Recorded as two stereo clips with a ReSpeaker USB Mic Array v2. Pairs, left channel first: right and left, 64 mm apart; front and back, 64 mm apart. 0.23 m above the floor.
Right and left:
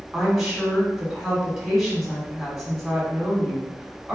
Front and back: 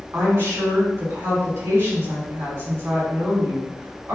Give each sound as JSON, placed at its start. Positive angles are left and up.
{"t": 0.1, "sound": "a woman speaking", "azimuth_deg": 175, "distance_m": 2.0}